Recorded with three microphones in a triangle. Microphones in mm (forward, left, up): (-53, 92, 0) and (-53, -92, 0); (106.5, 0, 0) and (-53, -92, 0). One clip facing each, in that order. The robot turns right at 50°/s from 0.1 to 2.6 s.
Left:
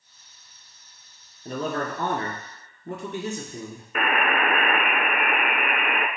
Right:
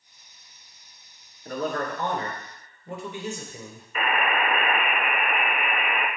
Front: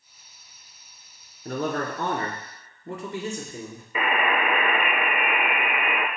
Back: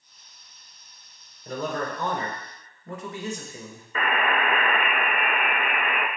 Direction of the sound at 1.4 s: 25° left.